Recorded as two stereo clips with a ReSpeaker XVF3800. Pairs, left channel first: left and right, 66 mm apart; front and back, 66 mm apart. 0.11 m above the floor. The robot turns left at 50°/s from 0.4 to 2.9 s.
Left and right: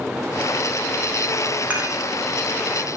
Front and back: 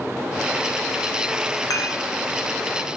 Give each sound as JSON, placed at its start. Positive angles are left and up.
{"t": 1.7, "sound": "dishes clattering", "azimuth_deg": -25, "distance_m": 5.0}